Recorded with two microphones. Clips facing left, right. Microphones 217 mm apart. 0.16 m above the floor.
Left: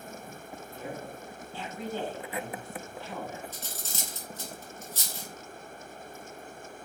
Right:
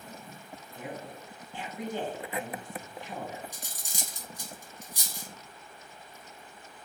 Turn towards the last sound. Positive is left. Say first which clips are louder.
# left 4 dB
turn(degrees=-15)  # may be behind; listen again after turning